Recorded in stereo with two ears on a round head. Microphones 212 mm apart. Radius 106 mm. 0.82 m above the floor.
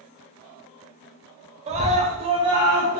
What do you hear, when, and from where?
1.7 s a scream: 25° right (ahead or behind), 0.6 m; by 3.0 s 10° right (ahead or behind), 0.8 m